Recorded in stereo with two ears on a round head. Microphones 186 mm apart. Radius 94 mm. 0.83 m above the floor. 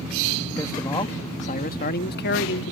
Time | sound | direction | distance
0.6 | a man speaking | 10° left (ahead or behind) | ?